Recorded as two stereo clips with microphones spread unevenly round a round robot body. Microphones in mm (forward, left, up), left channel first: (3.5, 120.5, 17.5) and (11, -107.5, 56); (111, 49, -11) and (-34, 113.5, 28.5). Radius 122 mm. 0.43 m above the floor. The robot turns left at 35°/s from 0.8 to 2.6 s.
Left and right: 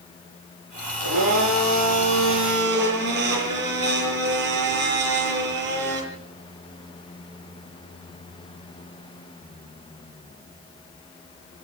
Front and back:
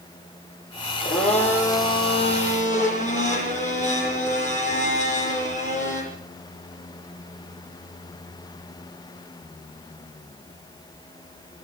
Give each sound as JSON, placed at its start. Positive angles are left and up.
{"t": 1.0, "sound": "a blender", "azimuth_deg": -75, "distance_m": 9.0}